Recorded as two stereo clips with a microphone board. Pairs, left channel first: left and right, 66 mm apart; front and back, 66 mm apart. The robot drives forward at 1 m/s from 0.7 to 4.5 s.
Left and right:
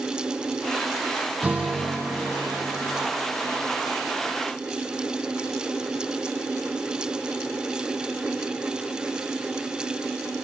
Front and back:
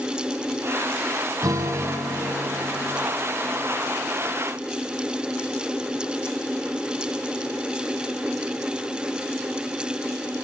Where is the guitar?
160° right, 3 m; by 3.0 s 165° right, 4.5 m.